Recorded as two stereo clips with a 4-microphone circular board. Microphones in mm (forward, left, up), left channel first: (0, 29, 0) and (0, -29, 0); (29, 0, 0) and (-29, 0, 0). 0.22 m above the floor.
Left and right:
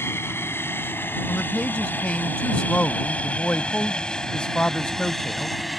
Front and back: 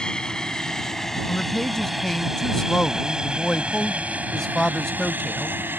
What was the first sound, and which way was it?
An aircraft, 70° left.